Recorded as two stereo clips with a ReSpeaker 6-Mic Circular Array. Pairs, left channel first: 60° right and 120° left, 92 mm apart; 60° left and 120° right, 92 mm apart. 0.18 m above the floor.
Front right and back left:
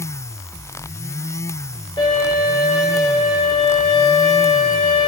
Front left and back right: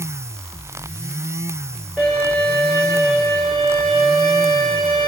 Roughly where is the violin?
Ahead.